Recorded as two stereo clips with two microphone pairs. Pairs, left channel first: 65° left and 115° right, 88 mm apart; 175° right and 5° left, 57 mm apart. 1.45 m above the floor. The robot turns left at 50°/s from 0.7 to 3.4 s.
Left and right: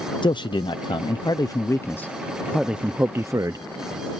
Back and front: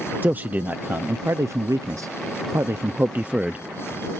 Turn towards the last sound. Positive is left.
turn(degrees=-70)